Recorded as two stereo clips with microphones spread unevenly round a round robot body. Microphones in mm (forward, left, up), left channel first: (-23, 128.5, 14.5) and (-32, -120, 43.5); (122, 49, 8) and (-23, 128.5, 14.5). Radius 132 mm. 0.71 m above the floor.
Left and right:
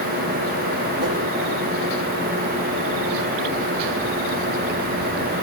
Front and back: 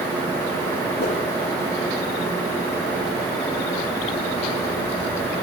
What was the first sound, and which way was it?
A whoosh, 15° right.